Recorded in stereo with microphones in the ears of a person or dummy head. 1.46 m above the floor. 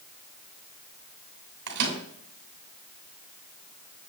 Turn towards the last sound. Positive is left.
turn(degrees=-65)  # may be behind; listen again after turning